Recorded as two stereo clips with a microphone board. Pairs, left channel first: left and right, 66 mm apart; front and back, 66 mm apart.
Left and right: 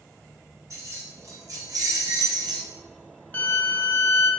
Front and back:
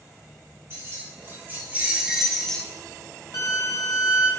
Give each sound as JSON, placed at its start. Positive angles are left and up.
{"t": 0.7, "sound": "keys jangling", "azimuth_deg": -125, "distance_m": 1.6}
{"t": 3.3, "sound": "a violin", "azimuth_deg": 30, "distance_m": 1.0}